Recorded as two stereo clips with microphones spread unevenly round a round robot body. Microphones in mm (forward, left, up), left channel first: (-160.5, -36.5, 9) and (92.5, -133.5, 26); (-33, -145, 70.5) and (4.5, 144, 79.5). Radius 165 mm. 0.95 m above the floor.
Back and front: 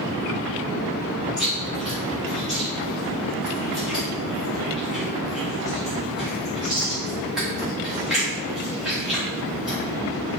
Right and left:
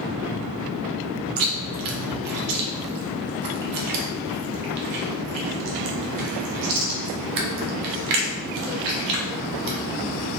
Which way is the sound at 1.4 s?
65° left.